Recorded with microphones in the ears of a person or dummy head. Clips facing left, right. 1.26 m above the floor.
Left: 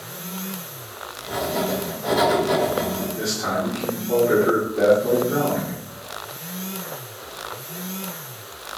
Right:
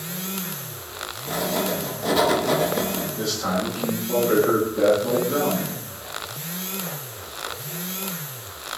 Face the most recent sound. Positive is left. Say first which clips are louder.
# even
turn(degrees=15)  # may be behind; listen again after turning